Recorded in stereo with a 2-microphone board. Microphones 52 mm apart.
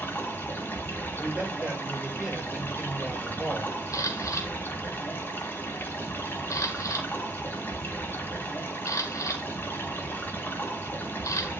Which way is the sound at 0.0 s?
40° left (ahead or behind).